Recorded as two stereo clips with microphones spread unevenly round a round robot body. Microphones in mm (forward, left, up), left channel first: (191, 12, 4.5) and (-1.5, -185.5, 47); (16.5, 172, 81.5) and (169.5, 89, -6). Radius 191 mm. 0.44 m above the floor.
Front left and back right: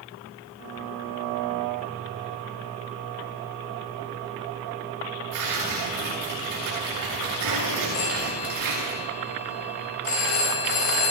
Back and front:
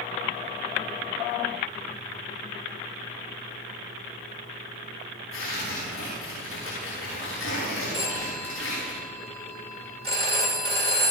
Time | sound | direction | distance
5.3 | tearing paper | straight behind | 7 m
7.9 | a phone ringing | 85° left | 5.5 m